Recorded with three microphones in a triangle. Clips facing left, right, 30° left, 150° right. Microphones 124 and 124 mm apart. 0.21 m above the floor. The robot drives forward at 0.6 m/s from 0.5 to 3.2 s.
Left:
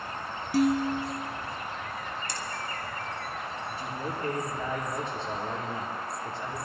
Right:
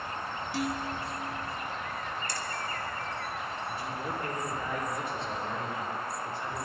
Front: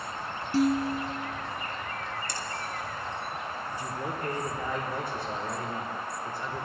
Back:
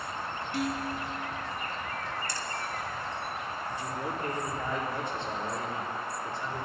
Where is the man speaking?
145° left, 5.5 m.